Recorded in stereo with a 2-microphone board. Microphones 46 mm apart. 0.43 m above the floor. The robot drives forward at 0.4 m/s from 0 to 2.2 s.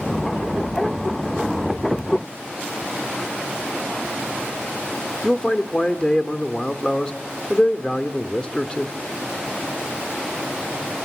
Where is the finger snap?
No finger snap in this recording.